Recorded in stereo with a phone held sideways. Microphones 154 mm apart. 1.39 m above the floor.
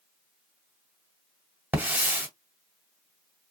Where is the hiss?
10° right (ahead or behind), 1.5 m.